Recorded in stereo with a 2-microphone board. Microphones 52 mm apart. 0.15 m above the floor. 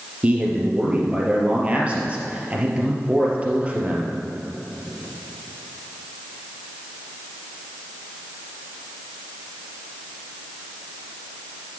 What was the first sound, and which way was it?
A man speaking, 25° right (ahead or behind).